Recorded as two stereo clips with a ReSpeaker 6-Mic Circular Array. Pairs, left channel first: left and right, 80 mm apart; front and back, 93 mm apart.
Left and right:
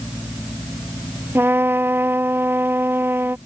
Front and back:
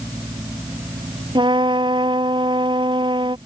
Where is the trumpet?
150° right.